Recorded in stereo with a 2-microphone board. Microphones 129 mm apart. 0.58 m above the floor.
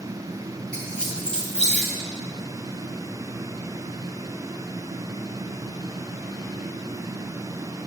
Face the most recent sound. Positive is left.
turn(degrees=10)  # may be behind; listen again after turning